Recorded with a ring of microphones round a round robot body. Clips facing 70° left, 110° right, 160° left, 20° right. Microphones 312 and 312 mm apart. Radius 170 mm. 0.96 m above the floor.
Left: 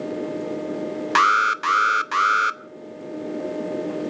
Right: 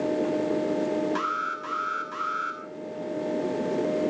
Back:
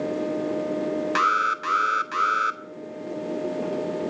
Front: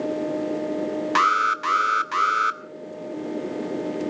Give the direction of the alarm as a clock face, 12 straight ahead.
10 o'clock.